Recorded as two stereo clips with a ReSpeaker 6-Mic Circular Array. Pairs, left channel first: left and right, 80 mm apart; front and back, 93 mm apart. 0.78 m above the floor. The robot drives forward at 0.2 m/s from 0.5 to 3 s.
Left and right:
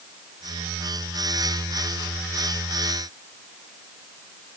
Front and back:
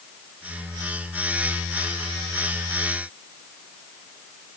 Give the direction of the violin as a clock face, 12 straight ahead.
No violin in this recording.